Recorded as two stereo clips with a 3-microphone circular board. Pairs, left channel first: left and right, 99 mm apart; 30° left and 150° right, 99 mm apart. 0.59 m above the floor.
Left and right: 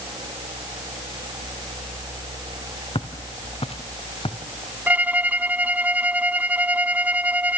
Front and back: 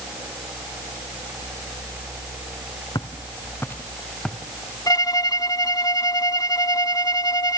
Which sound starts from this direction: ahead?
A violin, at 4.9 s.